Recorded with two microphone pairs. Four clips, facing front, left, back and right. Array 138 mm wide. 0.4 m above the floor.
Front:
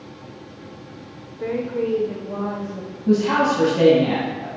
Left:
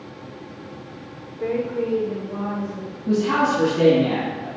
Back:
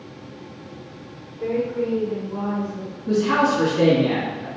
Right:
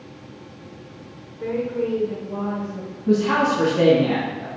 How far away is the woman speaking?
About 0.8 m.